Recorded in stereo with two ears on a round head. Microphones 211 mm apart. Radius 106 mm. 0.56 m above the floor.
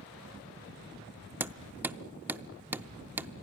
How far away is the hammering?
About 0.6 m.